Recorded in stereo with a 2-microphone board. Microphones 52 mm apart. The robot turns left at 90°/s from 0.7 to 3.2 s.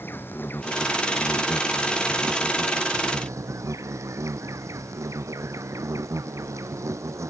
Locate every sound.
0.0 s an insect: 135° left; by 7.3 s 90° right